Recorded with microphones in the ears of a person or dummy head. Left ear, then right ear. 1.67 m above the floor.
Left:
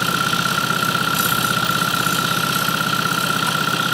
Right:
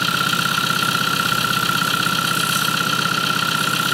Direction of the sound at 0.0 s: 15° right (ahead or behind).